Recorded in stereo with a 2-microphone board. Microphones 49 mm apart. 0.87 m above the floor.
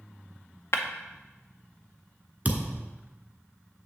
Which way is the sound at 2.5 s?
35° right (ahead or behind).